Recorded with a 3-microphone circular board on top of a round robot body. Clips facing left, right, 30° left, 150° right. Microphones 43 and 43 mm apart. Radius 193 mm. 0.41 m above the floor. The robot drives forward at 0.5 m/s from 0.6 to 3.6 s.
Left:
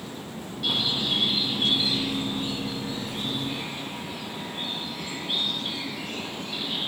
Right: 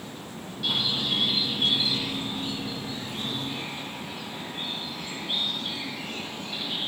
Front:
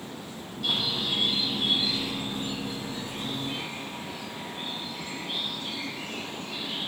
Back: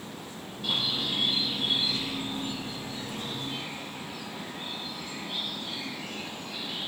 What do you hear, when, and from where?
0.6 s a bird: 5° left, 4.5 m; by 6.9 s 10° left, 3 m